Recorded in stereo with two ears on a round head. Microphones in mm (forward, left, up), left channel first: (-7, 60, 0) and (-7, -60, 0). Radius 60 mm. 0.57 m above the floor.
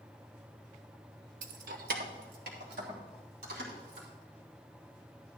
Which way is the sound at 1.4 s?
60° right (ahead or behind).